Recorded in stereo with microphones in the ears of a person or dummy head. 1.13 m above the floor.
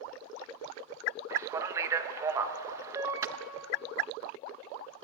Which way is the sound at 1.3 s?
15° right (ahead or behind).